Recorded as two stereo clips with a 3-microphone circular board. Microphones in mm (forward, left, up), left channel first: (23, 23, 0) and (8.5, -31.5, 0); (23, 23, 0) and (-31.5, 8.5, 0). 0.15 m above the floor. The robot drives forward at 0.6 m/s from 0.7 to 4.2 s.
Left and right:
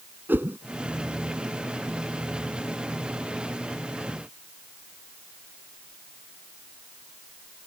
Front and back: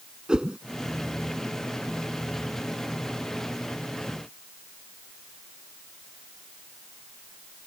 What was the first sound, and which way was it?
A whoosh, 100° right.